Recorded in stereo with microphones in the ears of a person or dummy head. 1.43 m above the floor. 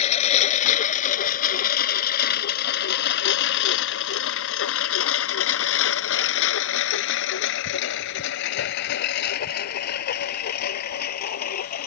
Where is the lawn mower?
40° left (ahead or behind); by 11.9 s 50° left (ahead or behind).